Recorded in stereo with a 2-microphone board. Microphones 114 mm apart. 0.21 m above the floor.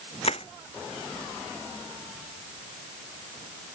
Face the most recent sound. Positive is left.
turn(degrees=60)  # may be behind; listen again after turning